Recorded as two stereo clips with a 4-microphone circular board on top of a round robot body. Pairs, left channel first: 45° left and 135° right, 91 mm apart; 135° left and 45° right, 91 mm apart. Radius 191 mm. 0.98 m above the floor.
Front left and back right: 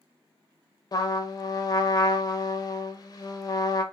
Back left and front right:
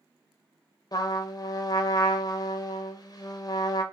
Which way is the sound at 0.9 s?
90° left.